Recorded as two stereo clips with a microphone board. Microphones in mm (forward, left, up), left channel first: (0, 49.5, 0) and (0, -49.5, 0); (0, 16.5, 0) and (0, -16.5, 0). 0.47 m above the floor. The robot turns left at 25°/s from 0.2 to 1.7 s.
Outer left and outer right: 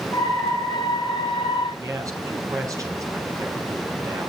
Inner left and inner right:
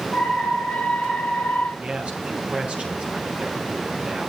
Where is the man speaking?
35° right (ahead or behind), 5.5 m.